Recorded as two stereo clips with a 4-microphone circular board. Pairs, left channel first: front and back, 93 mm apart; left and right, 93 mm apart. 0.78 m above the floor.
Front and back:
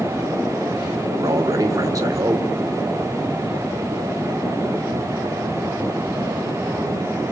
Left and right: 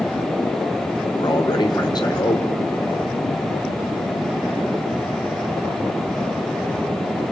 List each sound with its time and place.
1.2 s a man speaking: 130° left, 2.5 m